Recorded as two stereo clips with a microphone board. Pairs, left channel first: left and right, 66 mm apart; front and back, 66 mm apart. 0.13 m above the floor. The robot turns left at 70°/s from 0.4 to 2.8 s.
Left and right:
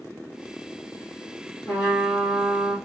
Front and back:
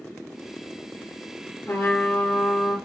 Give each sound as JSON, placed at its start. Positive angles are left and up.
{"t": 1.7, "sound": "a trumpet", "azimuth_deg": 45, "distance_m": 2.5}